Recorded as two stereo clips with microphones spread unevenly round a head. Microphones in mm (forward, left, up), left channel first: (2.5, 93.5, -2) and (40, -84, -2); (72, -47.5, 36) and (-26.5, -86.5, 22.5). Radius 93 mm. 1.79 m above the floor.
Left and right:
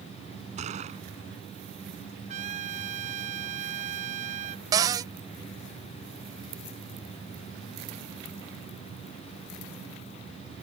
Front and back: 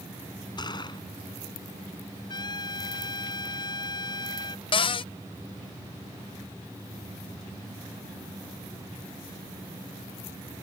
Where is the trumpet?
25° right.